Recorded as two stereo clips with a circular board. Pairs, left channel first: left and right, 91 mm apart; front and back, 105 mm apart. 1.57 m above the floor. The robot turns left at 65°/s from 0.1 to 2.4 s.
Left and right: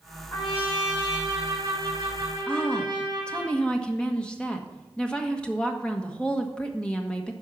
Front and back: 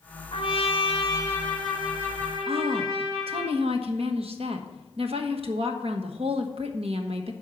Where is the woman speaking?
165° left, 1.3 m.